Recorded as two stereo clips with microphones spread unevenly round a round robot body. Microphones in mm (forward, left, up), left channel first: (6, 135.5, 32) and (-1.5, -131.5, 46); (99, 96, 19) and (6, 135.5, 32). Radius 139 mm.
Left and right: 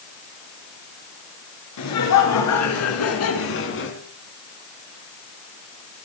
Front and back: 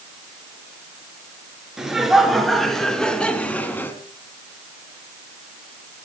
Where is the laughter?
70° left, 6.5 m; by 4.0 s 45° left, 4 m.